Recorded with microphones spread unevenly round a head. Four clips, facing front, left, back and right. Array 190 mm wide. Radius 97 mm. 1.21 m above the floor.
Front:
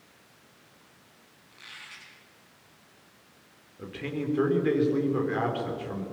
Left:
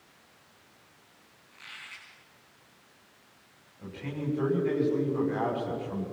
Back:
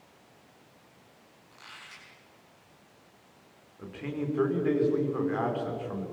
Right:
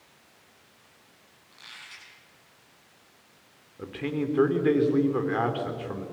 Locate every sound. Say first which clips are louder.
1.5 s a squeak: left 1 dB, front 1 dB; 165° right, 6 m
3.8 s a man speaking: right 6 dB, front 1 dB; 70° right, 4 m